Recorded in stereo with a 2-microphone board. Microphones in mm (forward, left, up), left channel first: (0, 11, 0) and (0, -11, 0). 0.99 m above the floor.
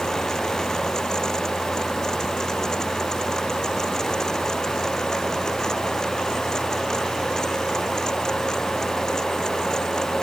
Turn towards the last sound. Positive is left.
No sound to turn to.